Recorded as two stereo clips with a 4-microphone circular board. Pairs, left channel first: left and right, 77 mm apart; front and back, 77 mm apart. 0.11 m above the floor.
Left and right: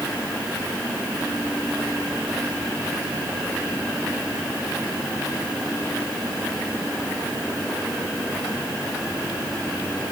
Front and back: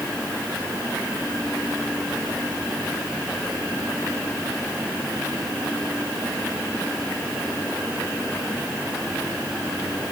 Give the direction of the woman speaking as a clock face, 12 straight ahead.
No woman speaking in this recording.